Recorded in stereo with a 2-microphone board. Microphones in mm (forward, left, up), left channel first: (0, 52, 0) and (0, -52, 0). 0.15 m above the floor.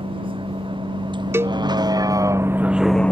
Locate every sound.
0.0 s a vehicle: 60° right (ahead or behind); by 3.1 s 15° left (ahead or behind)
1.3 s a cowbell: 25° right (ahead or behind)